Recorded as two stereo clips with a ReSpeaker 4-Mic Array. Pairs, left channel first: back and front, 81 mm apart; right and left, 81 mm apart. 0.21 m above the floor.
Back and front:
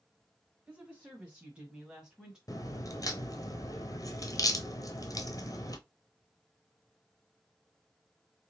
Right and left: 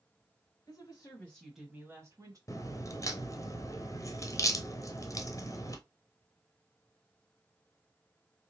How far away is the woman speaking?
About 1.7 m.